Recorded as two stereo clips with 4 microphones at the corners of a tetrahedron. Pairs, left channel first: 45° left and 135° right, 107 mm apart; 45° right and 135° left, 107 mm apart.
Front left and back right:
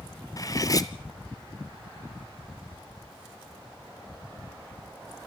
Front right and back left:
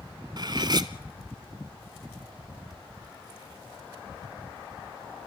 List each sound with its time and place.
0.4 s cutlery clinking: 95° left, 1.1 m